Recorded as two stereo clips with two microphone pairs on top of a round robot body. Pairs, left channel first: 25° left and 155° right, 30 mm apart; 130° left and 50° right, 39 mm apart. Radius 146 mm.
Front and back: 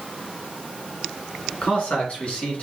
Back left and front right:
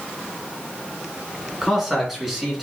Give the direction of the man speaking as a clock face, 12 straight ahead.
11 o'clock.